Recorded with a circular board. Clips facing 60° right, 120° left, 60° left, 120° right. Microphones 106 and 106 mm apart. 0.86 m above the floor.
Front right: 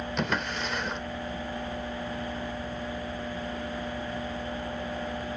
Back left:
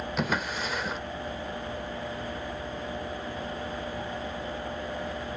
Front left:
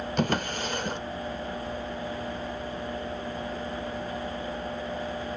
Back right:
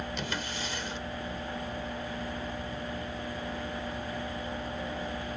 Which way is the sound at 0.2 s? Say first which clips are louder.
Back left 1 dB, front left 8 dB; 35° left.